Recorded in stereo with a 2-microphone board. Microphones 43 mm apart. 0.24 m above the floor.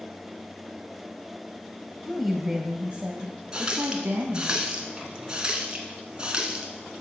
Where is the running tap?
20° right (ahead or behind), 1.8 m.